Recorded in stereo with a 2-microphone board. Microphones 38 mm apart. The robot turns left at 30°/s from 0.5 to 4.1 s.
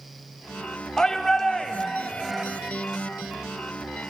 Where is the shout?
20° left (ahead or behind), 0.9 m; by 2.5 s centre (ahead or behind), 0.9 m.